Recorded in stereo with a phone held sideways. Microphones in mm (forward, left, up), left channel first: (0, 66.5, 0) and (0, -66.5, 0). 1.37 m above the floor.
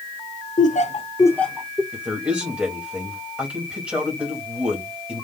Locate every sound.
0.6 s laughter: 70° left (ahead or behind), 0.9 m; by 1.8 s 10° right (ahead or behind), 1.2 m
1.9 s a man speaking: 5° right (ahead or behind), 2.5 m